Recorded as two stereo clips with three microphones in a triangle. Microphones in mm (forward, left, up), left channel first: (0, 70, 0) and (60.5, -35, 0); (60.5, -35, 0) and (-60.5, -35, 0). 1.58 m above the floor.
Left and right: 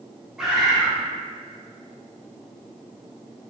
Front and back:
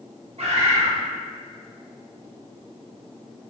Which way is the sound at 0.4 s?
145° right.